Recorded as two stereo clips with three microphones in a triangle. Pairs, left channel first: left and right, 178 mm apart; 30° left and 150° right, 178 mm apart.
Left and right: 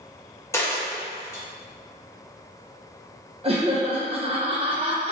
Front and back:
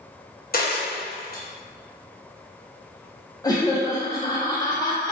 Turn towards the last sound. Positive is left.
turn(degrees=-40)